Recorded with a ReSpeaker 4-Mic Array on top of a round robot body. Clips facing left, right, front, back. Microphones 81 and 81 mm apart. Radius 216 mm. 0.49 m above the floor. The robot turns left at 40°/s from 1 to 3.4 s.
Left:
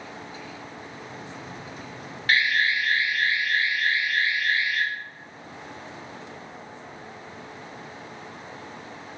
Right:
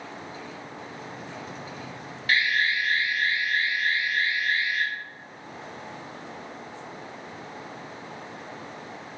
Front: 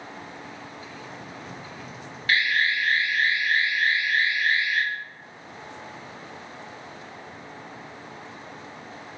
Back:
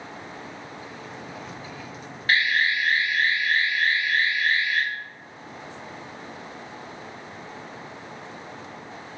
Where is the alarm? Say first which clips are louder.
Left 2 dB, back 1 dB; 125° left, 1.8 m; by 4.8 s 80° left, 1.8 m.